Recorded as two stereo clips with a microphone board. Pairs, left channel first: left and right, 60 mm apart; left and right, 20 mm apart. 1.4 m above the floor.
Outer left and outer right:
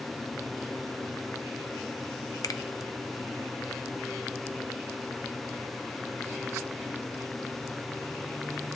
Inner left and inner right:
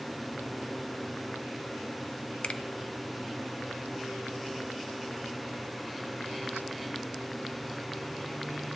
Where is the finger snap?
70° left (ahead or behind), 0.5 m.